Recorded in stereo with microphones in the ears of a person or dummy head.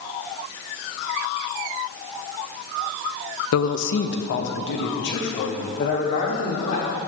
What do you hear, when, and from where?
3.5 s a man speaking: 75° left (ahead or behind), 0.8 m; by 7.0 s 60° left (ahead or behind), 4 m